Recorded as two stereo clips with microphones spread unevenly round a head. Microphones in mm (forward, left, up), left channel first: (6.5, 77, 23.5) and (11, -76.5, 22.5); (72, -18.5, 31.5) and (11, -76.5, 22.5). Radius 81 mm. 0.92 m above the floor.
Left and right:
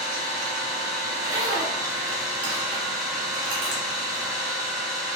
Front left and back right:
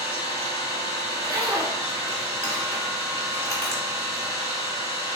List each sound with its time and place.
0.0 s an engine running: 155° right, 1.3 m
1.1 s a zipper: 90° right, 2.0 m